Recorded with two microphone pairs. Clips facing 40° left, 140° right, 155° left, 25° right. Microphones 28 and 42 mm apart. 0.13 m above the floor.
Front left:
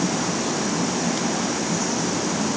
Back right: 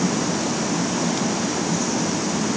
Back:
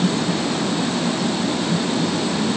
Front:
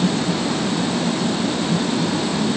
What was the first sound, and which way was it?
Only background noise.